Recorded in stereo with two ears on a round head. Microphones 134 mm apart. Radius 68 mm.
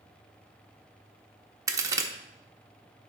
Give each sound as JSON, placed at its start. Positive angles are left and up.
{"t": 1.7, "sound": "a crack", "side_deg": -20, "distance_m": 1.0}